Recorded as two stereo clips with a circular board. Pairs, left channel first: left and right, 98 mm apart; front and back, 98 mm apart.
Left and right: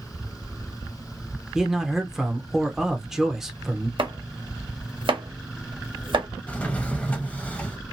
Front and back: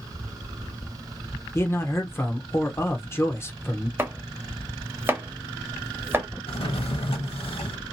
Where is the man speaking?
10° right, 0.8 m.